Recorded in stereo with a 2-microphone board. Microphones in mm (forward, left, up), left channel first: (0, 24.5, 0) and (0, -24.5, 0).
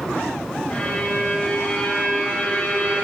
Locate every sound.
0.7 s a violin: 30° left (ahead or behind), 2.5 m